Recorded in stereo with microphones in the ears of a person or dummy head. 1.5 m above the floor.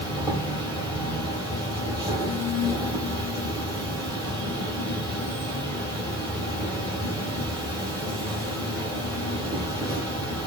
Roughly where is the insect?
Right.